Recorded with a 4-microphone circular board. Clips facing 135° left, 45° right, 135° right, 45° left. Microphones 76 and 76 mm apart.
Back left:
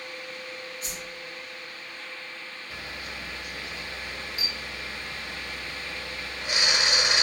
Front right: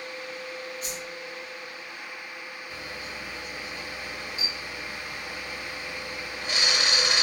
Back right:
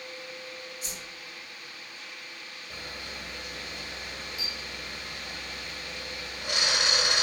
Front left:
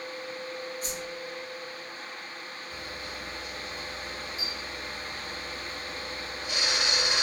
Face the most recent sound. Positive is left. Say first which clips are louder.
# back left 1 dB, back right 1 dB
turn(degrees=-155)